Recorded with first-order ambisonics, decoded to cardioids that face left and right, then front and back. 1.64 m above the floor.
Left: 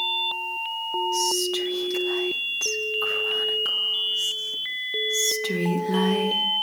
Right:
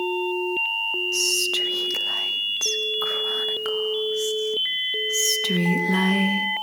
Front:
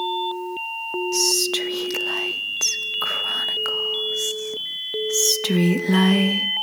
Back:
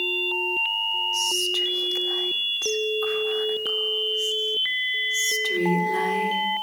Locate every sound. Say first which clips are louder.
1.1 s whispering: right 3 dB, front 2 dB; 15° right, 1.8 m